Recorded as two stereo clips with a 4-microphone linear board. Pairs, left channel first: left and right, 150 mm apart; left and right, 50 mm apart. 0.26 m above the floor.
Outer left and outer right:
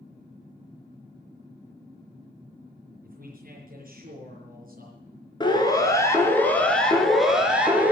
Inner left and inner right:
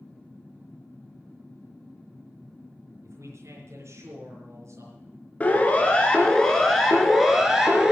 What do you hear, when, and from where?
3.0 s a man speaking: 65° right (ahead or behind), 4.5 m
5.4 s a siren: 30° left (ahead or behind), 2.5 m; by 7.9 s 10° right (ahead or behind), 3 m